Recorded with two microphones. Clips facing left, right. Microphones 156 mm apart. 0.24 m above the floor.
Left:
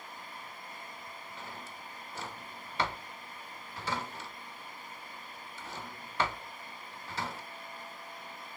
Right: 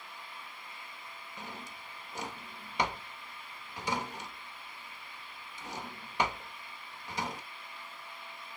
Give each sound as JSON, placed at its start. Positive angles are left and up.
{"t": 1.4, "sound": "a drawer", "side_deg": -15, "distance_m": 0.6}